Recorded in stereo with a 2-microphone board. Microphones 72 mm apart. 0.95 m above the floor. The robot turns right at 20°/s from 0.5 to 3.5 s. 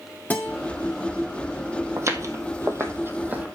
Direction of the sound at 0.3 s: 25° left (ahead or behind).